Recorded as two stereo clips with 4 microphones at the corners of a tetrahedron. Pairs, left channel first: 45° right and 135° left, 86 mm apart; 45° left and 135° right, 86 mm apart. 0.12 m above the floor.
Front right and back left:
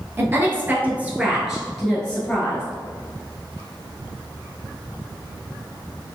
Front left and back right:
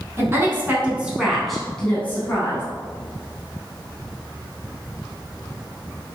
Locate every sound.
0.2 s a woman speaking: straight behind, 1.3 m; by 2.6 s 10° left, 1.2 m